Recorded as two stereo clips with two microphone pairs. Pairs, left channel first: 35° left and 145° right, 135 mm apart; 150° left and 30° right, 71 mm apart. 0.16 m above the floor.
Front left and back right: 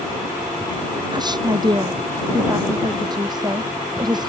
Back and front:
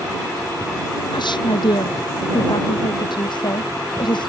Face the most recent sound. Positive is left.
turn(degrees=155)